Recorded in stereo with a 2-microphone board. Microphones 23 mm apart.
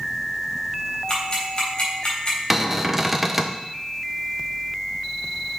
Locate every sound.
1.1 s ticking: 35° left (ahead or behind), 3.5 m
2.5 s a cupboard door: 10° right (ahead or behind), 0.7 m